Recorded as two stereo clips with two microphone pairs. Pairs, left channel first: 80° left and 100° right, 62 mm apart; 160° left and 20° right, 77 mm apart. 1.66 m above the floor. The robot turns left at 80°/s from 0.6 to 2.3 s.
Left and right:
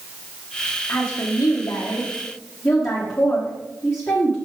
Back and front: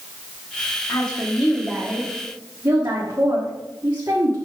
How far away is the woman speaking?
About 1.6 m.